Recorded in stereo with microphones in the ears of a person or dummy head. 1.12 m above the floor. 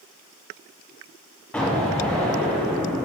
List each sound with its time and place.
1.5 s an explosion: 5° left (ahead or behind), 1.0 m